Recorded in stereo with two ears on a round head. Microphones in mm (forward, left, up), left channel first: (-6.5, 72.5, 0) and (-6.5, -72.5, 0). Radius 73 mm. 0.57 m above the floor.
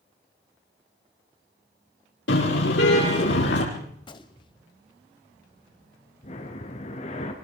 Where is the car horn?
85° left, 8.5 m; by 3.6 s 80° left, 9 m.